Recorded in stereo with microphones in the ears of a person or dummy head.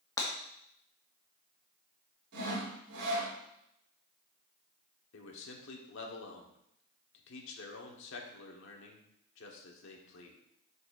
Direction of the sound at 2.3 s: 70° right (ahead or behind).